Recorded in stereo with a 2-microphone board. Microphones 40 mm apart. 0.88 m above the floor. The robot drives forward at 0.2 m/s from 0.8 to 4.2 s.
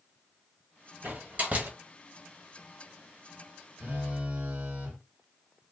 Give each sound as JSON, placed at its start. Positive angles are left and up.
{"t": 1.0, "sound": "a door slam", "side_deg": -50, "distance_m": 1.0}
{"t": 3.8, "sound": "a phone buzzing", "side_deg": -45, "distance_m": 1.2}